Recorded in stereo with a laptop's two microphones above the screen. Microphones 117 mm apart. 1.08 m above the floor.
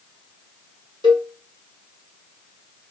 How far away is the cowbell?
About 0.9 m.